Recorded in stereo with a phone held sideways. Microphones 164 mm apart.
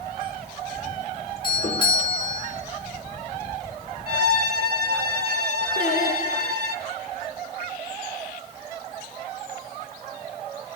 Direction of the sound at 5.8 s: 50° left (ahead or behind).